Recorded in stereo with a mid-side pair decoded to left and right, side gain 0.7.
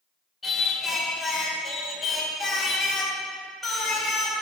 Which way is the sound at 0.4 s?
15° left.